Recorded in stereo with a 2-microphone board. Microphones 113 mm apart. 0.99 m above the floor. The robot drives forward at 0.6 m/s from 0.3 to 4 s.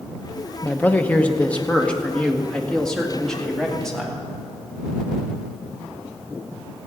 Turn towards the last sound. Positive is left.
turn(degrees=5)  # may be behind; listen again after turning